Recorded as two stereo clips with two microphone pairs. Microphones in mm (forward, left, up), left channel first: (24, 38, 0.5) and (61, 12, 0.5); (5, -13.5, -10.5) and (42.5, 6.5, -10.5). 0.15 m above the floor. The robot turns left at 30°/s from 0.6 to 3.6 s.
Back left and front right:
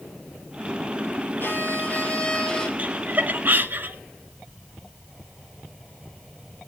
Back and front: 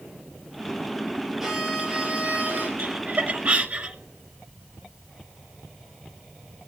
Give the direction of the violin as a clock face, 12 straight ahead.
8 o'clock.